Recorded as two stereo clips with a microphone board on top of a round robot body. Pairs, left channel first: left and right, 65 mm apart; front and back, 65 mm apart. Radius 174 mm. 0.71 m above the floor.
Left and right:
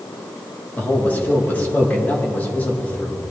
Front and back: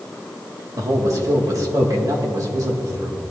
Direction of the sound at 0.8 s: 155° left.